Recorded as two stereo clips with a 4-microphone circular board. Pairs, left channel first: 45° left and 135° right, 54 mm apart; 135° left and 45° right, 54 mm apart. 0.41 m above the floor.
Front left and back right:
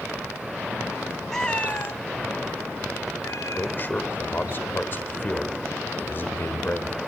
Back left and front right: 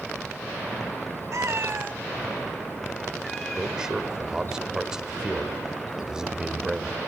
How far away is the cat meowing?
About 1.1 m.